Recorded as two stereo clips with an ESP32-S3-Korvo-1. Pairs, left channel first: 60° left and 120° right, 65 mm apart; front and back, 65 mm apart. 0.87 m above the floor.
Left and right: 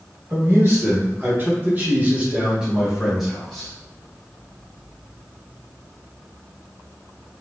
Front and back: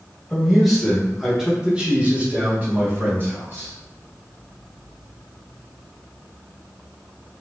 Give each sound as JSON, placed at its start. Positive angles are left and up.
{"t": 0.3, "sound": "a man speaking", "azimuth_deg": -85, "distance_m": 1.5}